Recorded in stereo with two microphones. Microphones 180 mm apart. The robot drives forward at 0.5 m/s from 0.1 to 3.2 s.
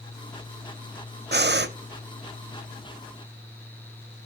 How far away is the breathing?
About 0.6 m.